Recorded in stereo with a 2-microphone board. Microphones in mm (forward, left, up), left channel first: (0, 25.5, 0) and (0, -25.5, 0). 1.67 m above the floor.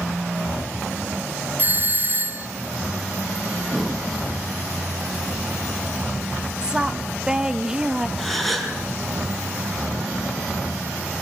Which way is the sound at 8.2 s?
5° left (ahead or behind).